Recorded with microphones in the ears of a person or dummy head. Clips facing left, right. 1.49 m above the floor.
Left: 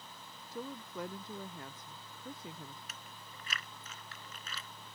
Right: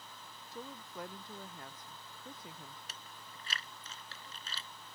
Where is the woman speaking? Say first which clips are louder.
Left 4 dB; 65° left (ahead or behind).